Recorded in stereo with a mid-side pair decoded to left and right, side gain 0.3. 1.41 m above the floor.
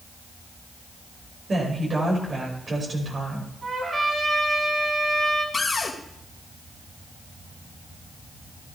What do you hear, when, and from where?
1.5 s a woman speaking: 55° right, 5.5 m
3.6 s a trumpet: 55° right, 7 m
5.5 s a cupboard door: 45° left, 2.5 m